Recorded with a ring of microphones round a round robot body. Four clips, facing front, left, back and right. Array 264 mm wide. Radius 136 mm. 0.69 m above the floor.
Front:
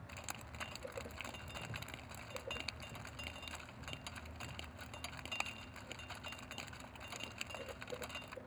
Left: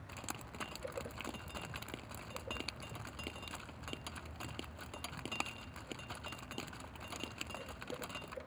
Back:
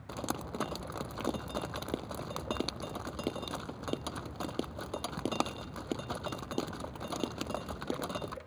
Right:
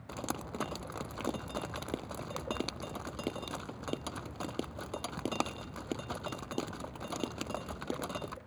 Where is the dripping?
150° right.